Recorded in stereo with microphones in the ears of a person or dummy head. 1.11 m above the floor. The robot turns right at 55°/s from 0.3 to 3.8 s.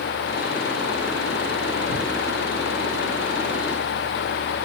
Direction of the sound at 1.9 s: 25° left (ahead or behind).